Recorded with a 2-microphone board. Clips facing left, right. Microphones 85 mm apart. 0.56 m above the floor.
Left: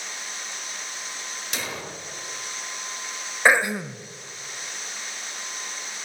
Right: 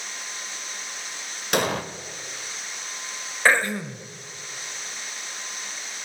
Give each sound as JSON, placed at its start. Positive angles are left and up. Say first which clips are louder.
{"t": 1.5, "sound": "an explosion", "louder": "right 11 dB", "side_deg": -60, "distance_m": 0.9}
{"t": 3.5, "sound": "throat clearing", "louder": "left 1 dB", "side_deg": 15, "distance_m": 0.6}